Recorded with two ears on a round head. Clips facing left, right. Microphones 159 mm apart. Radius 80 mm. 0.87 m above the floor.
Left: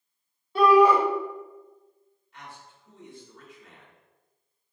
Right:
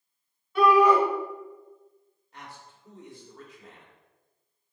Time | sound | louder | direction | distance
0.6 | a shout | left 2 dB | 30° left (ahead or behind) | 1.6 m
2.3 | a man speaking | even | 35° right (ahead or behind) | 3 m